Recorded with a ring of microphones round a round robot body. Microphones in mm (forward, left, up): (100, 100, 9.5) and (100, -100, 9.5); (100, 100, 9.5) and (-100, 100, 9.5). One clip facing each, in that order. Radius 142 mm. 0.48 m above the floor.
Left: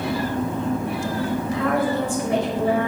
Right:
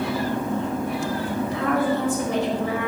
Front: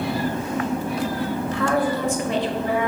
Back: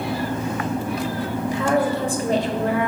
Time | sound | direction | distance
1.5 | a woman speaking | 105° left | 1.8 m